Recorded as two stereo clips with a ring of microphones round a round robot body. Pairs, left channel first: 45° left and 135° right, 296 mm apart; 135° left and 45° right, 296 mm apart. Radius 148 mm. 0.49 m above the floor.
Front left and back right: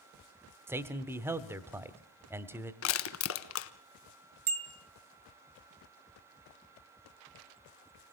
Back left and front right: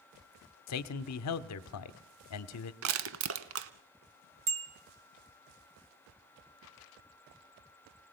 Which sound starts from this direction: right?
A bicycle bell, at 4.5 s.